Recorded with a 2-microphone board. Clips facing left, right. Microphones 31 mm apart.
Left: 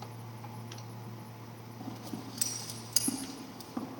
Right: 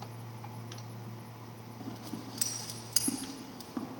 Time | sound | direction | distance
1.8 | scissors | 15° right (ahead or behind) | 0.8 m